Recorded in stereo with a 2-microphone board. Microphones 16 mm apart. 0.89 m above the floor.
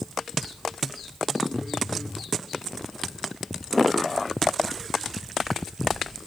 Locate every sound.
1.5 s a phone buzzing: 25° right (ahead or behind), 2.5 m